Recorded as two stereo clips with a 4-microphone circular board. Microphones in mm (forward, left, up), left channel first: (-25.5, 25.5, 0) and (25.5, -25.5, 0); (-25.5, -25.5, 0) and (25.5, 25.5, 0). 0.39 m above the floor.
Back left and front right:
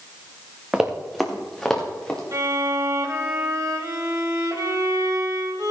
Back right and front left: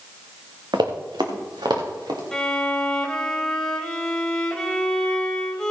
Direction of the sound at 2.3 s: 55° right.